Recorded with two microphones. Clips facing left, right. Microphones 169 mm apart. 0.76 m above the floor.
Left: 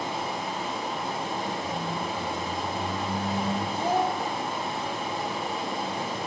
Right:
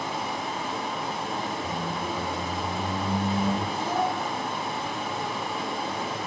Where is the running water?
Centre (ahead or behind), 4.5 m.